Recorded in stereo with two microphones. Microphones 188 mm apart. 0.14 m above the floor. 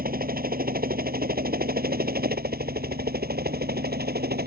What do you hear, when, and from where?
0.0 s a helicopter: 50° right (ahead or behind); by 4.5 s 60° right (ahead or behind)